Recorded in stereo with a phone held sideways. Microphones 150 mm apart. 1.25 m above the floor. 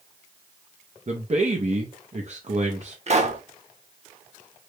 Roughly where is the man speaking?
Right.